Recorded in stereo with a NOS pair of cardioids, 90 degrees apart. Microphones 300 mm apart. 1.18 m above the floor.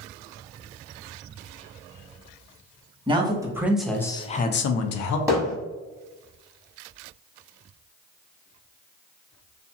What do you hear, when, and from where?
3.1 s a man speaking: 15° right, 1.1 m; by 5.2 s 80° left, 0.6 m
5.3 s hammering: 10° right, 1.0 m